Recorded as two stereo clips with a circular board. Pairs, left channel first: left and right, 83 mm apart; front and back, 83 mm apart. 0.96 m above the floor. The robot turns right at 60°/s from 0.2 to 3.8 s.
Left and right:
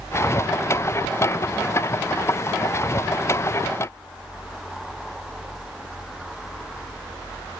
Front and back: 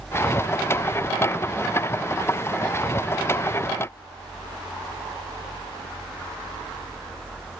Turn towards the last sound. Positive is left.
No sound to turn to.